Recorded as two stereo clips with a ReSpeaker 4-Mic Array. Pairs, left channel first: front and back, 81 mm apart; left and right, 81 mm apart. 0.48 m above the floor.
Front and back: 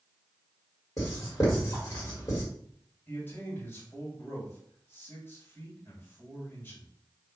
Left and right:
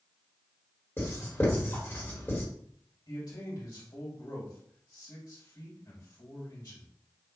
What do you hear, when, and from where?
1.0 s writing: 35° left, 1.7 m
3.1 s a man speaking: 60° left, 1.9 m